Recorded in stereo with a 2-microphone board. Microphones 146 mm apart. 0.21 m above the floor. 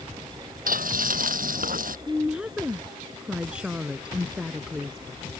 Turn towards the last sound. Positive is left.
turn(degrees=-5)  # may be behind; listen again after turning